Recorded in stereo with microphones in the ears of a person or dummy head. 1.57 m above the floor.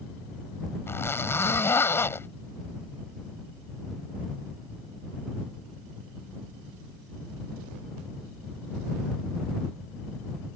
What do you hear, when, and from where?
0.9 s a zipper: 15° left (ahead or behind)